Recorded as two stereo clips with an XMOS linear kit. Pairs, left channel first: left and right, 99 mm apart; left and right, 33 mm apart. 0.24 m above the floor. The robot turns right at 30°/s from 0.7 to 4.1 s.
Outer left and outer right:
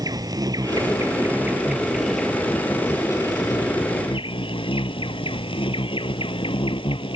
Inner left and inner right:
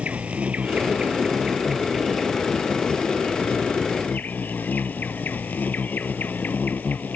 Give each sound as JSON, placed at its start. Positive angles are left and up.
{"t": 0.0, "sound": "an insect", "azimuth_deg": -40}